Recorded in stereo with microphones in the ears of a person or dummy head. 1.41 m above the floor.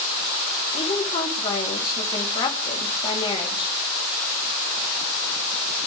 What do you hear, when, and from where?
0.7 s a woman speaking: 30° left (ahead or behind), 3.5 m